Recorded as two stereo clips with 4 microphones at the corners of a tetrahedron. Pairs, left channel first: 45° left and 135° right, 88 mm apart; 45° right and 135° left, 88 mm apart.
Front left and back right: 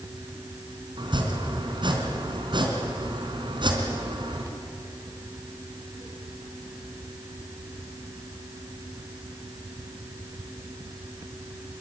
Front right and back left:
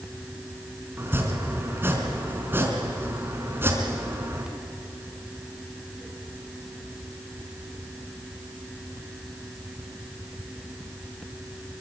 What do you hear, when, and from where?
1.0 s chopping: 160° right, 3.5 m